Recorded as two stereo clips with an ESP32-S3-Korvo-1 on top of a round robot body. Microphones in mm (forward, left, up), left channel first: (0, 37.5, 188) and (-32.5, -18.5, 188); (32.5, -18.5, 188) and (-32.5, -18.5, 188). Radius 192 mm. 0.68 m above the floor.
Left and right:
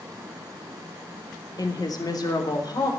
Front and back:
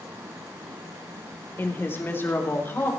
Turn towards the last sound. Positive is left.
turn(degrees=55)